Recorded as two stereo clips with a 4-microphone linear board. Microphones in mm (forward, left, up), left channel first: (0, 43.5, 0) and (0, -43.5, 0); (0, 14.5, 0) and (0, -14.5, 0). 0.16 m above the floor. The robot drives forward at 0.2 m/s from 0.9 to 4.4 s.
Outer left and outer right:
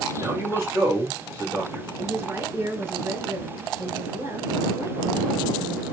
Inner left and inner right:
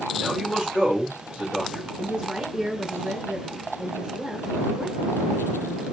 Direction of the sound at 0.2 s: 30° right (ahead or behind).